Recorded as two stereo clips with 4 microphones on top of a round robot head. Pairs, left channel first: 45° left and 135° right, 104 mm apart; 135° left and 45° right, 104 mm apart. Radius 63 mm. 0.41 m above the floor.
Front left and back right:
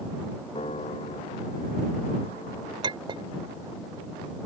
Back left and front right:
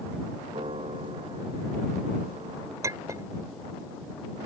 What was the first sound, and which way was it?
A piano, straight ahead.